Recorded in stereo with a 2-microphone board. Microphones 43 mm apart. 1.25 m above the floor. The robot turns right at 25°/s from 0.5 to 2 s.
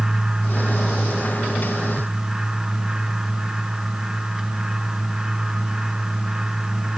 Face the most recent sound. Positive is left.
No sound to turn to.